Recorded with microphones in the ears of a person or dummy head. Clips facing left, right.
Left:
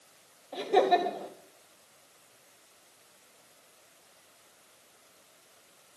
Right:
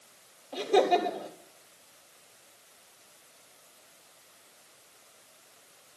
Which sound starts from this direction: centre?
Laughter, at 0.5 s.